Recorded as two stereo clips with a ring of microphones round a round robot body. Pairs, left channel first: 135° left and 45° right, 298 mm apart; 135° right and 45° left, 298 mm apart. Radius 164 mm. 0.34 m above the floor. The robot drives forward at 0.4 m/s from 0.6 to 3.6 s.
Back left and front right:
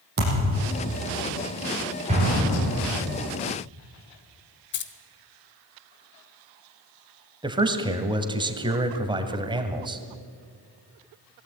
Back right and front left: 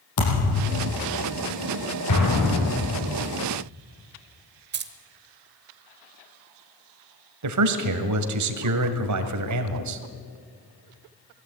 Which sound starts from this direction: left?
Keys jangling, at 4.7 s.